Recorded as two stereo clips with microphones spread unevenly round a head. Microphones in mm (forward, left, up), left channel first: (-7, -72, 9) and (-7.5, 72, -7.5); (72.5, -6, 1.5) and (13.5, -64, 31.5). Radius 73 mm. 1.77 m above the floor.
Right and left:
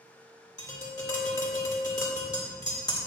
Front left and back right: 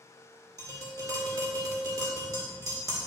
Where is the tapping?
145° right, 2.0 m.